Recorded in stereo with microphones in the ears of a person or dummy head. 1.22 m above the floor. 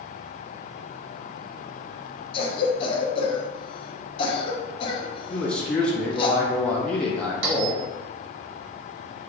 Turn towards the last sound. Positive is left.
turn(degrees=-75)  # may be behind; listen again after turning